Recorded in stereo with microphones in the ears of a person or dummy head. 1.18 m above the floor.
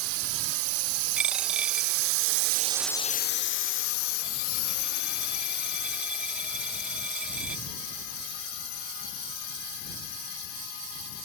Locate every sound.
0.0 s a drone: 80° right; by 11.3 s 80° left
1.2 s a dropped coin: 5° right (ahead or behind)